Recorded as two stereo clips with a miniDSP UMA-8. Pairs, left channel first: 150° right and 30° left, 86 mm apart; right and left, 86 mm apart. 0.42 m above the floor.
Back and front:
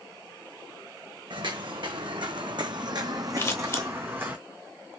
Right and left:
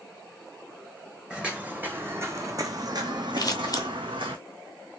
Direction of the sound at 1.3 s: 10° left.